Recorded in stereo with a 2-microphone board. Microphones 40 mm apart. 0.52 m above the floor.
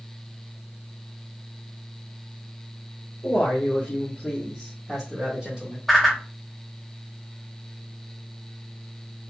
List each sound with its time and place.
3.2 s a man speaking: 45° left (ahead or behind), 1.4 m; by 5.8 s 20° right (ahead or behind), 1.8 m
5.9 s a whoosh: 5° left (ahead or behind), 1.0 m